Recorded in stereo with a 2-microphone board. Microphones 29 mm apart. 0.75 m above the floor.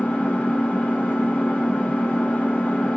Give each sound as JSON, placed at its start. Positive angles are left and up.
{"t": 0.0, "sound": "an engine running", "side_deg": 60, "distance_m": 1.4}